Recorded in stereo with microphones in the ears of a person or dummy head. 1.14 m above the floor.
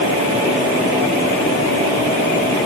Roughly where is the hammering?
I don't hear hammering.